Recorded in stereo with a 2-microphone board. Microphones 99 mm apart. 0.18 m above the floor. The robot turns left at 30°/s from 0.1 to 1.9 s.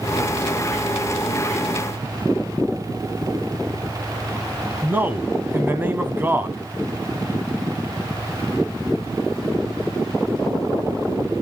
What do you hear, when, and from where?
4.8 s a man speaking: 20° right (ahead or behind), 1.0 m